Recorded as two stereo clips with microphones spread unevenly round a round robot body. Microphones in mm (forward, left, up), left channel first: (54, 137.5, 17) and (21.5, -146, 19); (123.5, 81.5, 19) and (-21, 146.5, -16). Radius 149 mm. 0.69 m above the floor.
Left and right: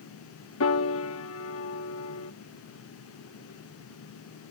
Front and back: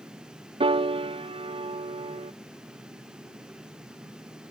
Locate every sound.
0.6 s a piano: 115° left